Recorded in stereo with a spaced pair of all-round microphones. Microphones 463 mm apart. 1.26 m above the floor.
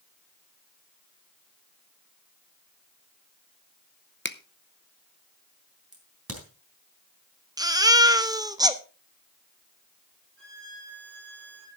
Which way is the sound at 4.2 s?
25° left (ahead or behind).